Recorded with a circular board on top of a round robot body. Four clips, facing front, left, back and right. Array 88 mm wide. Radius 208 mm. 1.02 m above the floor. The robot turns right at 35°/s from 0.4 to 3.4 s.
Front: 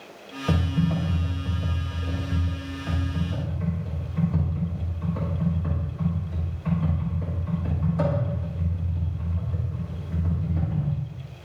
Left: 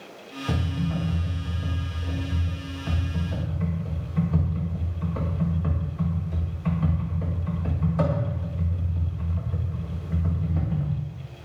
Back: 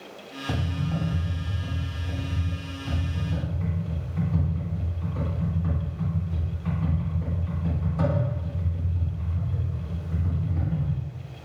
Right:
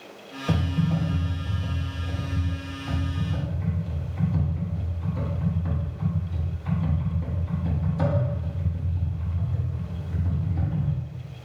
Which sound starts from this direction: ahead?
Typing on a keyboard, at 0.5 s.